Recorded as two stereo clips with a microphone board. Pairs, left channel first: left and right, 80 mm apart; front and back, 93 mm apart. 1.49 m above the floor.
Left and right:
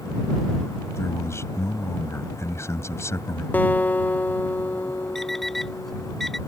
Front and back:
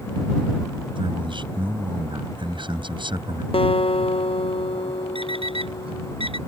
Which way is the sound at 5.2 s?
175° left.